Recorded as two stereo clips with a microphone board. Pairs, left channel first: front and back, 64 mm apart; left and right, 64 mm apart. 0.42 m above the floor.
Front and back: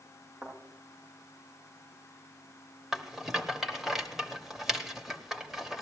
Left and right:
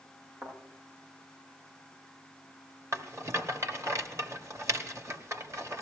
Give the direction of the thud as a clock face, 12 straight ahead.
4 o'clock.